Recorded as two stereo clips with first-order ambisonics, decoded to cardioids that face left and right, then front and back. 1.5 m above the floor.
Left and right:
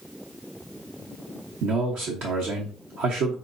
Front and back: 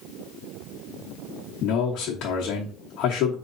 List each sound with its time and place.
1.6 s a man speaking: 45° right, 1.0 m